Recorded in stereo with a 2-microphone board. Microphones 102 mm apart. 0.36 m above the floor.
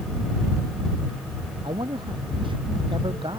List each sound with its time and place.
1.6 s a man speaking: 55° right (ahead or behind)